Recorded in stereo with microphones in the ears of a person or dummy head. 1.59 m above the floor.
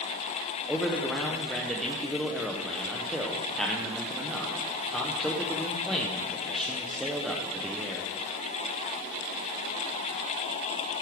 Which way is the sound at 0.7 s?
5° left (ahead or behind).